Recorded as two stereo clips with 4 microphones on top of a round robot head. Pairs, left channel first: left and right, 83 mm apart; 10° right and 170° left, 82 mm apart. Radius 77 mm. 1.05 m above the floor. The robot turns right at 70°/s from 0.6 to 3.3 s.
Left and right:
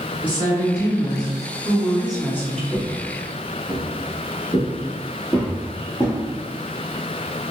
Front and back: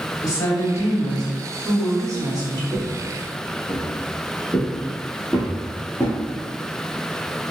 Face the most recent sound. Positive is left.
turn(degrees=-20)